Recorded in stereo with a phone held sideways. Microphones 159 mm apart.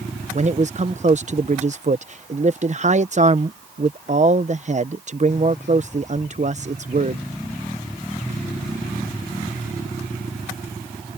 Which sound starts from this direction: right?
A man speaking, at 0.3 s.